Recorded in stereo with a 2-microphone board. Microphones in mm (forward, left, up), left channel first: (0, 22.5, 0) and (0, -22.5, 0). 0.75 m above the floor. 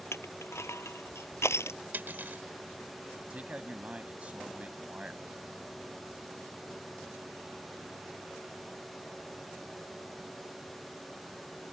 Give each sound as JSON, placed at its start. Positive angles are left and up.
{"t": 0.1, "sound": "crushing", "side_deg": 80}
{"t": 1.9, "sound": "cutlery clinking", "side_deg": -50}
{"t": 3.3, "sound": "a man speaking", "side_deg": -30}